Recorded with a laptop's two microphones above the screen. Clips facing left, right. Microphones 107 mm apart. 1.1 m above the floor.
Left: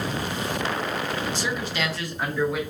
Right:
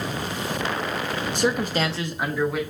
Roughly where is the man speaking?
Right.